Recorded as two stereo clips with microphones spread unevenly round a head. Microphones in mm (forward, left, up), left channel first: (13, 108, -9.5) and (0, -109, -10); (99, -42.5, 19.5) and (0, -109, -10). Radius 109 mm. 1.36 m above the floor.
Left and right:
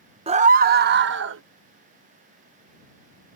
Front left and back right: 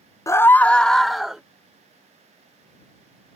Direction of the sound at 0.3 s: 30° right.